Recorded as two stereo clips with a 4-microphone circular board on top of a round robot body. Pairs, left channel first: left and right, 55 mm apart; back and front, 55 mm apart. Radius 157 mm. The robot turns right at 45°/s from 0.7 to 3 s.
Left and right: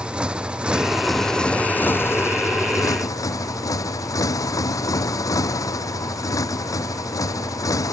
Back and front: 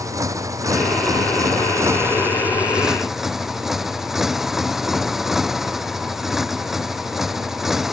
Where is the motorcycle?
20° right; by 7.9 s 85° left.